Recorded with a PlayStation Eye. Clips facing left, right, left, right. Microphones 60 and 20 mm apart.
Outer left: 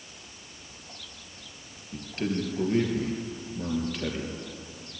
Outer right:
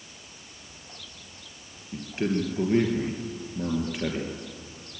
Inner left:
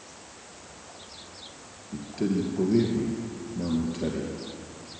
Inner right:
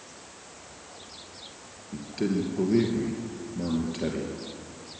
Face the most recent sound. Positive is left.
turn(degrees=-20)  # may be behind; listen again after turning